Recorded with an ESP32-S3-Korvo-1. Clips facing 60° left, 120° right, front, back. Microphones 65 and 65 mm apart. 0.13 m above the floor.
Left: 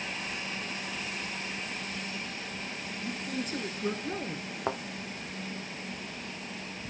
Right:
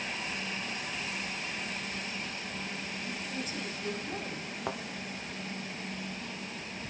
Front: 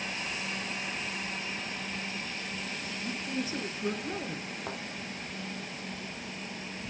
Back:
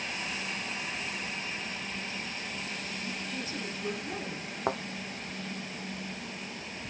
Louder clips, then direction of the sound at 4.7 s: Left 4 dB, back 10 dB; 130° left.